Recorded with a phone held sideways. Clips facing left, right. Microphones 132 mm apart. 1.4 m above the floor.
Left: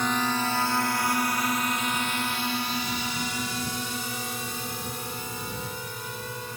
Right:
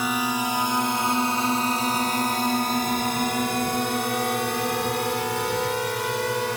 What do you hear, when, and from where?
0.0 s a drone: 10° right (ahead or behind); by 6.6 s 80° right